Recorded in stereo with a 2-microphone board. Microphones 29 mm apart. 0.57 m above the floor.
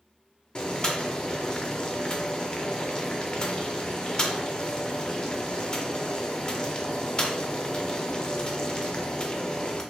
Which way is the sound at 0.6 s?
30° left (ahead or behind).